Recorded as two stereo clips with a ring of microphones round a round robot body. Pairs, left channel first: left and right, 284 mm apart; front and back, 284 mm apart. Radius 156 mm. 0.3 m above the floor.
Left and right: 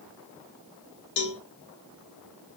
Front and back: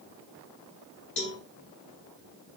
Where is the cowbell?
55° left, 0.6 m.